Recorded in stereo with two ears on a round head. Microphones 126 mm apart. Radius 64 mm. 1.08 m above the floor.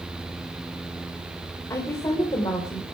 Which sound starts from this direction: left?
A woman speaking, at 1.7 s.